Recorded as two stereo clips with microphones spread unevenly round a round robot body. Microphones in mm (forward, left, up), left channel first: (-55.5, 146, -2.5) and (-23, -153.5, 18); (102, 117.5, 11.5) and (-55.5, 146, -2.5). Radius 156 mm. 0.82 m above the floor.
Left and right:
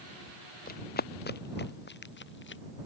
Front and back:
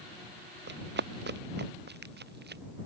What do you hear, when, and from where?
0.7 s running footsteps: 160° left; by 2.6 s 150° left